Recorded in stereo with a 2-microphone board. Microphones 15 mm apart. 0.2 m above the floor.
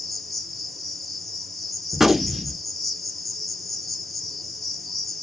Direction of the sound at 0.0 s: 5° left (ahead or behind).